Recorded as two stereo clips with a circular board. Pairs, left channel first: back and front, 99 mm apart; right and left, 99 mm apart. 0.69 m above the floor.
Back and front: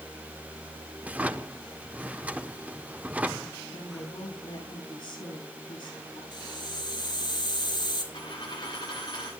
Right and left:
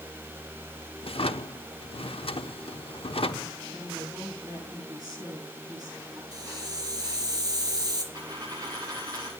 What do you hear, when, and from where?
1.0 s a drawer: 75° right, 1.0 m
3.7 s a woman speaking: 140° left, 9.5 m
6.3 s a hiss: 135° left, 4 m
8.1 s a dropped coin: 135° left, 10 m